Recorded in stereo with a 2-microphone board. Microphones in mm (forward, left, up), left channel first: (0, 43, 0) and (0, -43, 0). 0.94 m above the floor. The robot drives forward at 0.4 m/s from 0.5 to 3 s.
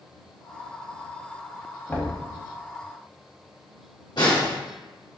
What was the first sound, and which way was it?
Knocking, 20° left (ahead or behind).